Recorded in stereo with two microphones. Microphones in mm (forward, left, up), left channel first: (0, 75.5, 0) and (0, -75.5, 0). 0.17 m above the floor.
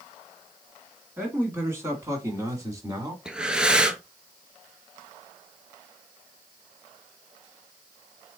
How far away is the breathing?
About 0.6 m.